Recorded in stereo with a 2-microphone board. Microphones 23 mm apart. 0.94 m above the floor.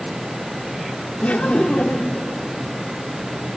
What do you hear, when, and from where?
1.2 s laughter: 65° left (ahead or behind), 1.9 m